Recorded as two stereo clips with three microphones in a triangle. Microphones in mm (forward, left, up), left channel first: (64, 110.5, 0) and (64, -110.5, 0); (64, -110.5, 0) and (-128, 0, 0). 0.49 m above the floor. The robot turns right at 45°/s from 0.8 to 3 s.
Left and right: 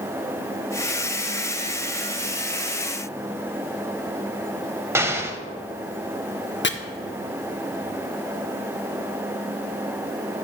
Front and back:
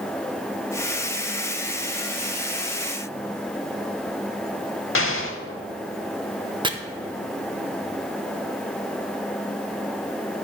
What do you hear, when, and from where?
5.0 s an explosion: 10° right, 0.7 m
6.6 s chopping: 90° left, 0.5 m